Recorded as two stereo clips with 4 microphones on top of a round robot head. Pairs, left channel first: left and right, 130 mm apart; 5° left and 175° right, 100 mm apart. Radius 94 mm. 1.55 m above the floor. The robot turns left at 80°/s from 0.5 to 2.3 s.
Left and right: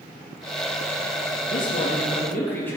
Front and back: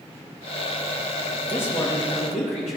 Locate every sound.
1.5 s a man speaking: 80° left, 3 m; by 2.8 s 15° left, 3 m